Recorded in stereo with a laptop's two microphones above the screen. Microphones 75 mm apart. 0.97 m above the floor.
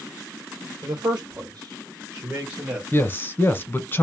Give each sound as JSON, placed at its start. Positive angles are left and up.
{"t": 0.8, "sound": "a man speaking", "side_deg": -55, "distance_m": 1.4}
{"t": 2.9, "sound": "a man speaking", "side_deg": 30, "distance_m": 0.9}